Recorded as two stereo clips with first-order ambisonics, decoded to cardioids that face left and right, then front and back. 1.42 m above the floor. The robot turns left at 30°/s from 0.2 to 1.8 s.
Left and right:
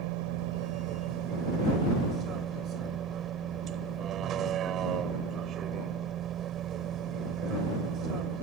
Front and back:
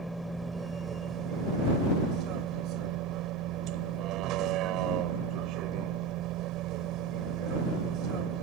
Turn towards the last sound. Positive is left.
turn(degrees=-140)